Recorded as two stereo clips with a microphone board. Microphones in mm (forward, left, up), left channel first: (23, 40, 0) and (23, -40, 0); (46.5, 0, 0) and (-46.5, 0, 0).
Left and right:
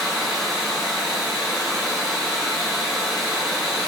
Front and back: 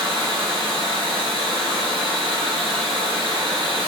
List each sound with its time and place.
0.0 s running water: 170° right, 1.7 m